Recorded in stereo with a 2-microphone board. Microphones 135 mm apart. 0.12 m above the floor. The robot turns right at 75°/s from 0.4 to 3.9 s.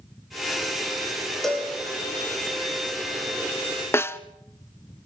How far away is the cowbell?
About 4.5 m.